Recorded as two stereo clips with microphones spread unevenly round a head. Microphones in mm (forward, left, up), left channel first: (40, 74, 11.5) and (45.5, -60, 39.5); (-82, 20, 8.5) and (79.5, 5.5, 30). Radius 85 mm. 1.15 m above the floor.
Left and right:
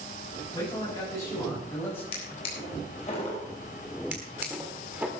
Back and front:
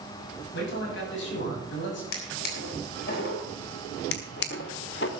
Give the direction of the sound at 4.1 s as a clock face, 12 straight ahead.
5 o'clock.